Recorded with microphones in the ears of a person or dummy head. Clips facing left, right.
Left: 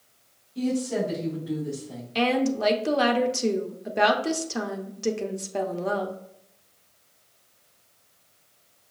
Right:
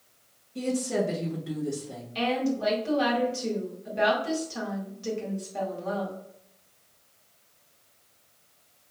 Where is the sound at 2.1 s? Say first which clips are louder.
Left 4 dB; 70° left (ahead or behind), 0.9 m.